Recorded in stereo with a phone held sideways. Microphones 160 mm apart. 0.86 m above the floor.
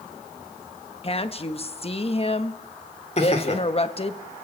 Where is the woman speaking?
40° left (ahead or behind), 1.2 m.